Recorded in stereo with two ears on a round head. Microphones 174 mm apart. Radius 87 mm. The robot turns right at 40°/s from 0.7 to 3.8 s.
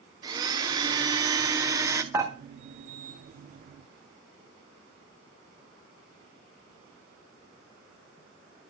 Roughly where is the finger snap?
No finger snap in this recording.